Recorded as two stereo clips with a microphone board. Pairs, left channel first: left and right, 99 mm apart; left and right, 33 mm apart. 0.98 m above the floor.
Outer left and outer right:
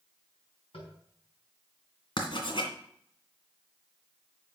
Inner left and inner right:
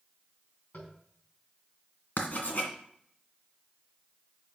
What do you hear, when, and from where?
0.7 s tapping: 70° left (ahead or behind), 4 m
2.2 s writing: 55° left (ahead or behind), 2 m